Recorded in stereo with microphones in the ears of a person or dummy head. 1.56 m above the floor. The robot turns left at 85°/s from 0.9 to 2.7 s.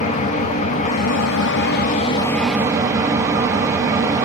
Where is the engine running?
135° left, 0.8 m; by 4.2 s 20° right, 0.8 m.